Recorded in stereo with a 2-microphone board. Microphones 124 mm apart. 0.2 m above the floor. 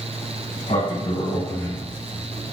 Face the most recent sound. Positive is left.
turn(degrees=45)  # may be behind; listen again after turning